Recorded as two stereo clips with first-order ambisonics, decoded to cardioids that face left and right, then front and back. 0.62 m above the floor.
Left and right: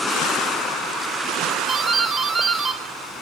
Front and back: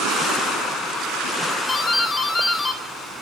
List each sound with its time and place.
1.7 s a doorbell: 25° right, 1.1 m